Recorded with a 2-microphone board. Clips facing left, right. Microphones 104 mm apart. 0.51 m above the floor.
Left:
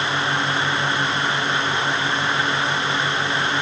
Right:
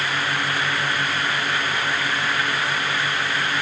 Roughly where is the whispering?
I don't hear whispering.